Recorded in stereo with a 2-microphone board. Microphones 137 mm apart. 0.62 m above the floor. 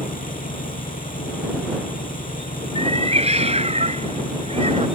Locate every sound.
0.0 s an engine running: 85° left
2.8 s a cat meowing: 50° right (ahead or behind)